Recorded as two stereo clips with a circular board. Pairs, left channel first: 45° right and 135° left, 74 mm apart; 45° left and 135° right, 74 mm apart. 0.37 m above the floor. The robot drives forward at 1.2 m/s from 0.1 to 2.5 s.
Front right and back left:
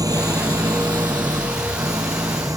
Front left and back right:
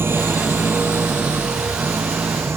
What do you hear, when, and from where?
0.0 s an engine running: 170° left; by 2.6 s 175° left